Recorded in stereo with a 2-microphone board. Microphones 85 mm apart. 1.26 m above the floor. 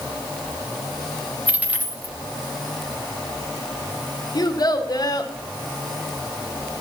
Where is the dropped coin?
15° right (ahead or behind), 0.7 m.